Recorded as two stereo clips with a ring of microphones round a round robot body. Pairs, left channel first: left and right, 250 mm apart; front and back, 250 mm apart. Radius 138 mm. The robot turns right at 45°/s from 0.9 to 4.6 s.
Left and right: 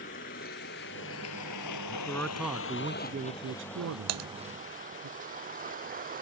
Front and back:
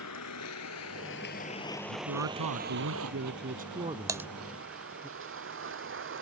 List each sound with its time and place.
0.0 s a vehicle: 30° left; by 6.2 s 145° right
1.9 s a man speaking: 155° left; by 5.1 s 80° right
4.1 s typing on a keyboard: 105° right; by 4.3 s 95° right